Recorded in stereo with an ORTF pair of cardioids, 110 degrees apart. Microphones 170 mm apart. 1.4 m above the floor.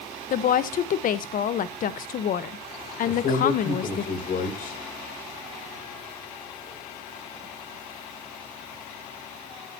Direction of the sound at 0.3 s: 55° left.